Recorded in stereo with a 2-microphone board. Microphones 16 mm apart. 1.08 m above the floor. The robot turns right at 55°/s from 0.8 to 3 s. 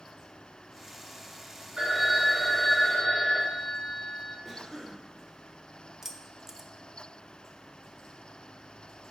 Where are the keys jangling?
20° right (ahead or behind), 0.6 m.